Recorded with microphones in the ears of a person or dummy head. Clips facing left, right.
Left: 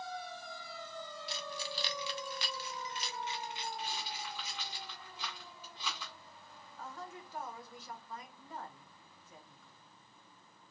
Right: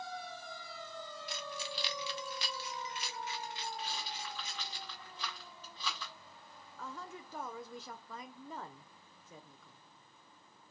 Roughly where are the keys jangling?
Left.